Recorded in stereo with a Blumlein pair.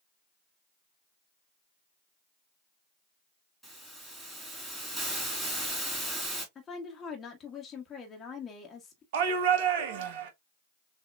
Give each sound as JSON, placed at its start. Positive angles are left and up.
{"t": 3.6, "sound": "a hiss", "azimuth_deg": 0, "distance_m": 2.5}
{"t": 6.5, "sound": "a woman speaking", "azimuth_deg": 20, "distance_m": 1.4}
{"t": 9.1, "sound": "a shout", "azimuth_deg": -50, "distance_m": 0.9}